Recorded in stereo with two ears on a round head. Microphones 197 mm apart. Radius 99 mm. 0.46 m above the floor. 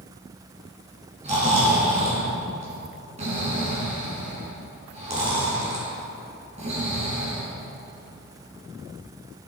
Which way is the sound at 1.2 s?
30° right (ahead or behind).